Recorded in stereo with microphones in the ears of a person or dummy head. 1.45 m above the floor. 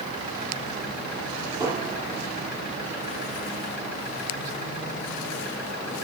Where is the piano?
10° right (ahead or behind), 2.5 m.